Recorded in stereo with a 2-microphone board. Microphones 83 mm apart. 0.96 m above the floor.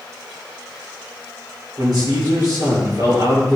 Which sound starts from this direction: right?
A man speaking, at 1.8 s.